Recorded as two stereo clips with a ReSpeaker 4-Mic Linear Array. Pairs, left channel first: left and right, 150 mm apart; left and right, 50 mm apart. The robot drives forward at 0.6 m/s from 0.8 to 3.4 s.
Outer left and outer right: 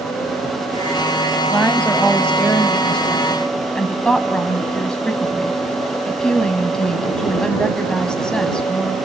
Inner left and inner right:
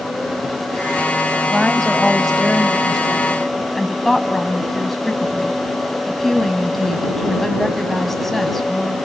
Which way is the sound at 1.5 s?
5° left (ahead or behind).